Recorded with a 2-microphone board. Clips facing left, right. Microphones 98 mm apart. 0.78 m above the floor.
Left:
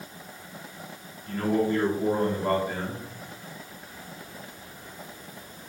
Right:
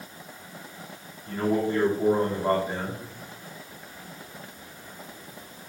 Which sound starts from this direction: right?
A man speaking, at 1.3 s.